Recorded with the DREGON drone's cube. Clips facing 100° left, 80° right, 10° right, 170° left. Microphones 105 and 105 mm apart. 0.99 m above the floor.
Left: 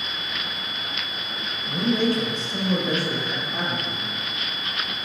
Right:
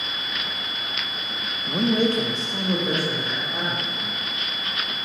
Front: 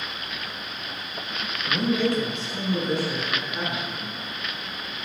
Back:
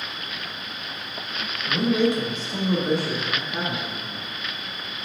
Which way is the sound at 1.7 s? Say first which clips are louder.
Right 1 dB, back 2 dB; 95° right.